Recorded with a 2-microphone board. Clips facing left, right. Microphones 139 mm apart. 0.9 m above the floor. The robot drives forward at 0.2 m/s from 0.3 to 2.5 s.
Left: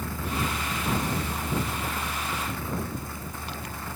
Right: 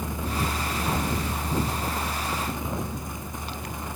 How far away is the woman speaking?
I don't hear a woman speaking.